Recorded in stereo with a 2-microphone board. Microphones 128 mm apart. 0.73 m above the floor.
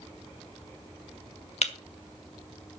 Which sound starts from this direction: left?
Breaking glass, at 1.6 s.